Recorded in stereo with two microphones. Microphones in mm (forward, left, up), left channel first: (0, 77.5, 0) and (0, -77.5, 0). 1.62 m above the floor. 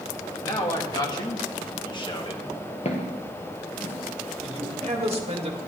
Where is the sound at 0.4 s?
25° left (ahead or behind), 3 m; by 2.5 s 35° left (ahead or behind), 1.7 m.